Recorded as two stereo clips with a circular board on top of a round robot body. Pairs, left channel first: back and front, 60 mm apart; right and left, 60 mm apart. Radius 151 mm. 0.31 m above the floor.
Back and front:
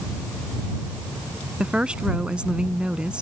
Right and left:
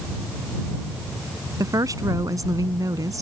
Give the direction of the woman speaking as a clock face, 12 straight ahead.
10 o'clock.